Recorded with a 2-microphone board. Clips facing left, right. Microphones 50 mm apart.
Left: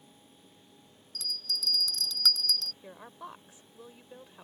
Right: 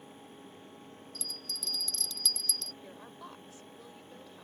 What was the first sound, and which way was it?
A bell, 80° left.